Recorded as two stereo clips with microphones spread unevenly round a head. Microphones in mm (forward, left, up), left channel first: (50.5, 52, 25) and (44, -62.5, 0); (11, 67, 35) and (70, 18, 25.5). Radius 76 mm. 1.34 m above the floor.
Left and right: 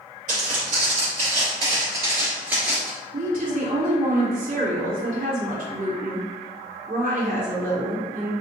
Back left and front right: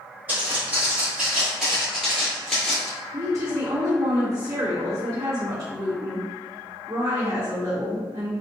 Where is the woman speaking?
100° right, 1.8 m.